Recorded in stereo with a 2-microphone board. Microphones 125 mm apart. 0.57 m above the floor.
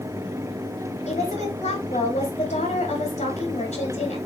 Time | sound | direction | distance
1.1 | a woman speaking | 65° left (ahead or behind) | 2.5 m